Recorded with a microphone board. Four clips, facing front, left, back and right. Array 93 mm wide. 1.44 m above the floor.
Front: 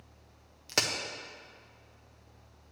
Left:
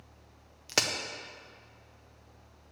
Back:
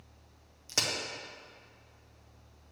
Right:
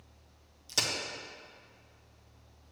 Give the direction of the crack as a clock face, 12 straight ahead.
10 o'clock.